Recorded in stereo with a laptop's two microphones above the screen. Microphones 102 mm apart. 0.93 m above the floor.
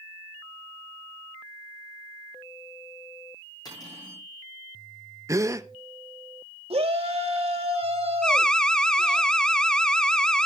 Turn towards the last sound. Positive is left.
turn(degrees=10)  # may be behind; listen again after turning